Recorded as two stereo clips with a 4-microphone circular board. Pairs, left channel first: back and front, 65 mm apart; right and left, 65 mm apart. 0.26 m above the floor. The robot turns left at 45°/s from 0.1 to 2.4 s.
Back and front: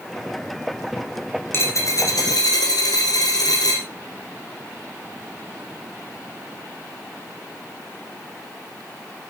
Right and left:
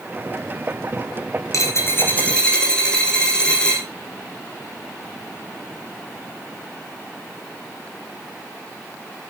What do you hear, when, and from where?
1.5 s a dropped coin: 125° right, 3 m; by 3.9 s 165° right, 3 m